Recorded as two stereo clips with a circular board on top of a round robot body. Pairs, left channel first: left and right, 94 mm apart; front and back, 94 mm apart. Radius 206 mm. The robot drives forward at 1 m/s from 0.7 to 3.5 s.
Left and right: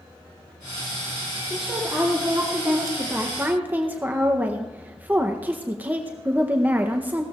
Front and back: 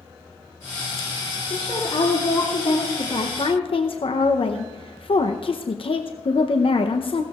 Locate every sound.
1.5 s a woman speaking: 5° right, 3 m; by 7.2 s 20° right, 0.9 m